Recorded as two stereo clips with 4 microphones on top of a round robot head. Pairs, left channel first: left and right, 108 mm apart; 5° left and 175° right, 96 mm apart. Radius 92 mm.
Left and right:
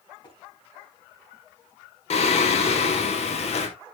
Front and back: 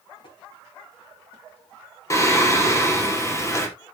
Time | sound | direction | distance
0.2 | tapping | 40° left | 5 m
2.1 | singing | 65° left | 2.5 m